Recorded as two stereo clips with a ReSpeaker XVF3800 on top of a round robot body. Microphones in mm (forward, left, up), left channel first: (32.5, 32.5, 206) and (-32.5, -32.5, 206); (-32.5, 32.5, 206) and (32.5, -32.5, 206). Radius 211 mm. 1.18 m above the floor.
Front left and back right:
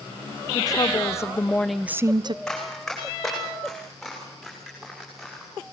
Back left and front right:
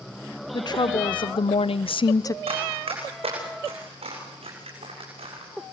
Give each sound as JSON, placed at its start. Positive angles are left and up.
{"t": 0.5, "sound": "a woman speaking", "azimuth_deg": 90, "distance_m": 1.5}
{"t": 2.5, "sound": "running footsteps", "azimuth_deg": -40, "distance_m": 7.0}